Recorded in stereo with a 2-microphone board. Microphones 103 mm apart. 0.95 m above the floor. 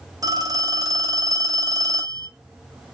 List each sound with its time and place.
0.2 s a phone ringing: 40° right (ahead or behind), 1.0 m